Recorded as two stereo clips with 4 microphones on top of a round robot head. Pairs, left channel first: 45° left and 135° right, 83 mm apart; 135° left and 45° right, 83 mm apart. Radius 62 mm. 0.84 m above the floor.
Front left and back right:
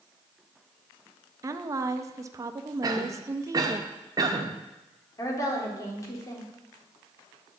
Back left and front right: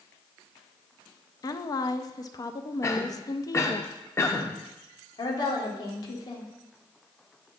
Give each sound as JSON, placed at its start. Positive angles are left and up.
{"t": 1.4, "sound": "a woman speaking", "azimuth_deg": 175, "distance_m": 0.6}
{"t": 2.8, "sound": "a cough", "azimuth_deg": -175, "distance_m": 1.2}
{"t": 5.2, "sound": "a woman speaking", "azimuth_deg": 95, "distance_m": 1.9}